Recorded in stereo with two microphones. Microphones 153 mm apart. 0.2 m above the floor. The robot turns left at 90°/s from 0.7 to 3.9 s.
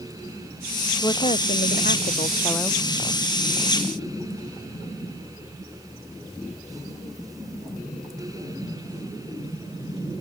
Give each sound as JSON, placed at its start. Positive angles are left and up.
{"t": 1.0, "sound": "a woman speaking", "azimuth_deg": 160}